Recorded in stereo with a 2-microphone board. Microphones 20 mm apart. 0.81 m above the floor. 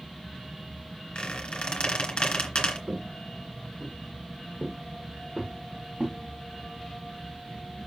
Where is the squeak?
50° left (ahead or behind), 2.5 m.